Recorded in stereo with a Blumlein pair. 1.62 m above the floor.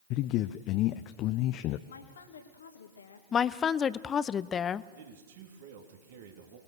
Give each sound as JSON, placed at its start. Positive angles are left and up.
{"t": 0.1, "sound": "a man speaking", "azimuth_deg": 40, "distance_m": 0.7}
{"t": 1.9, "sound": "a woman speaking", "azimuth_deg": 65, "distance_m": 2.0}
{"t": 3.3, "sound": "a woman speaking", "azimuth_deg": 25, "distance_m": 0.7}
{"t": 5.0, "sound": "a man speaking", "azimuth_deg": -55, "distance_m": 3.5}